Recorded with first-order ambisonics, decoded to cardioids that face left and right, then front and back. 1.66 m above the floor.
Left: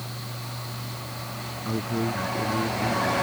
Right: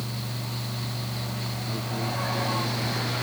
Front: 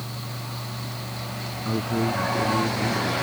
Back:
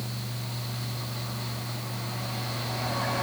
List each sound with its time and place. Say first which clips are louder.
1.6 s a man speaking: left 4 dB, front 10 dB; 25° left